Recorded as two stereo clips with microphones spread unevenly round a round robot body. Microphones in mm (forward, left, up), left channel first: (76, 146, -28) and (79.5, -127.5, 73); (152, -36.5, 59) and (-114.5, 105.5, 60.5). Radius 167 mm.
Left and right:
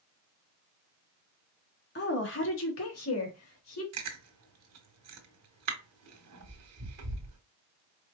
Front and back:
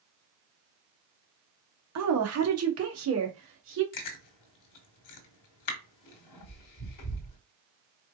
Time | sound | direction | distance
1.9 | a woman speaking | 125° left | 1.3 m
3.9 | chewing | 55° right | 1.2 m